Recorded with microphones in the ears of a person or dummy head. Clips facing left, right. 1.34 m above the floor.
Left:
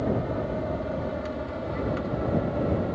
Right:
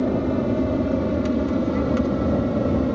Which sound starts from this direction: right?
An aircraft, at 0.0 s.